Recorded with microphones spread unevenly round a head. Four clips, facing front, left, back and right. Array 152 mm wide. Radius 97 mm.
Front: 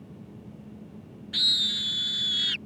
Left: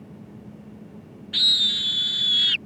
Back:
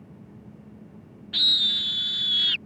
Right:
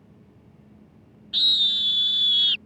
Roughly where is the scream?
Behind.